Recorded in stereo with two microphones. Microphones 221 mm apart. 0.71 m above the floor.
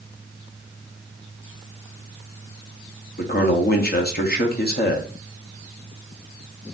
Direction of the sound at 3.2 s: 45° left (ahead or behind).